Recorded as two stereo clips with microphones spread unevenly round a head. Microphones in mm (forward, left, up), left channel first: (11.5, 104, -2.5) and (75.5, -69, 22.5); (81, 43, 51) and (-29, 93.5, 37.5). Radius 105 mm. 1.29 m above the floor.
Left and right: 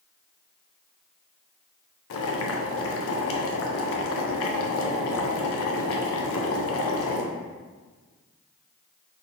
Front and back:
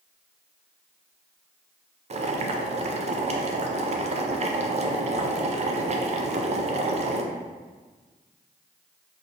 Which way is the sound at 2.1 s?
120° left.